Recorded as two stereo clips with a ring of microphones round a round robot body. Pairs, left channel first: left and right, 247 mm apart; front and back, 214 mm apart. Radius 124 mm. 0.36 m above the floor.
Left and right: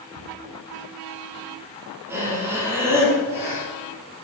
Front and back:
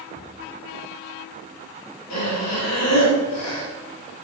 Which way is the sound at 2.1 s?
10° right.